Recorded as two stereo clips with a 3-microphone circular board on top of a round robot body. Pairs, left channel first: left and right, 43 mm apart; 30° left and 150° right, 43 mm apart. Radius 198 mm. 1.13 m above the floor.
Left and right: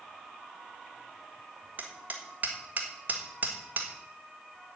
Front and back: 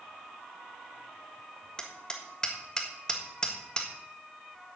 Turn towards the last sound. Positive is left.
turn(degrees=-40)